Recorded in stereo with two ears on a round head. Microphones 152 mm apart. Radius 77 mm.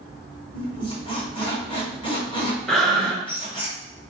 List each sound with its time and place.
0.5 s a squeak: 30° left (ahead or behind), 1.0 m
2.7 s breathing: centre (ahead or behind), 0.6 m